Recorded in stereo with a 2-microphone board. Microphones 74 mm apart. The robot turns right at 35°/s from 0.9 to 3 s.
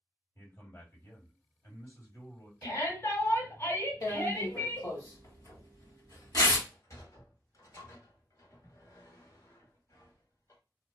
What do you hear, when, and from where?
0.3 s a man speaking: 55° left, 1.8 m; by 2.5 s 115° left, 1.8 m
2.6 s a shout: 45° left (ahead or behind), 1.9 m; by 4.9 s 40° left (ahead or behind), 1.9 m
4.0 s tearing paper: 50° left (ahead or behind), 1.2 m
6.6 s a sliding door: 45° left (ahead or behind), 1.2 m